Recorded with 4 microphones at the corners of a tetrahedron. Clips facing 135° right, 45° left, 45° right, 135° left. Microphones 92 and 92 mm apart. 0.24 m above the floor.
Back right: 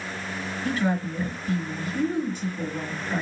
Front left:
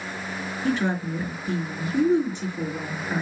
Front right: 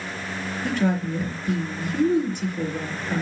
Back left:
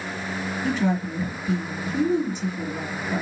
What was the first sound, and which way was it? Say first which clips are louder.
A woman speaking: front left 1 dB, front right 1 dB; 20° right.